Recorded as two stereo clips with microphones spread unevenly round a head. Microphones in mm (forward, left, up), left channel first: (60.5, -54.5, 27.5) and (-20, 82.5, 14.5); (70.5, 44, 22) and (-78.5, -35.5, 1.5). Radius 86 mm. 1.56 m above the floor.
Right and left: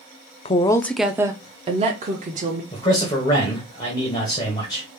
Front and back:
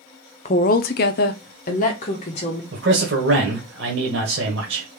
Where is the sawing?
No sawing in this recording.